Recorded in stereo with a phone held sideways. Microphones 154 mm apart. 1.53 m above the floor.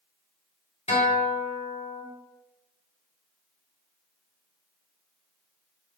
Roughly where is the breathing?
I don't hear breathing.